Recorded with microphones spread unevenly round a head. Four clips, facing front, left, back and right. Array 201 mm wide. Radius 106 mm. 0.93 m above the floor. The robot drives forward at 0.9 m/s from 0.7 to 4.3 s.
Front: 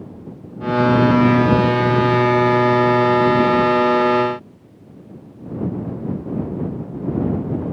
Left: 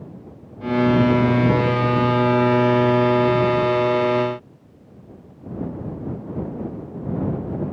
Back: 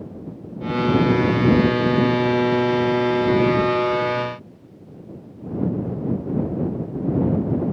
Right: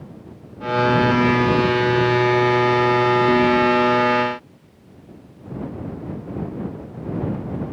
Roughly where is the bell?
I don't hear a bell.